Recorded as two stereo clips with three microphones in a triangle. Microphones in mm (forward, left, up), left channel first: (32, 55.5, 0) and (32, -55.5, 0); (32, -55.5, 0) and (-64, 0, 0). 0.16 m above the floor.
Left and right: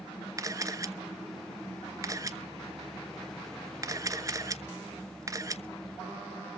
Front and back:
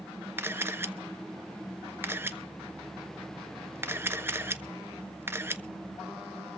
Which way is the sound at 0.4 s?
145° right.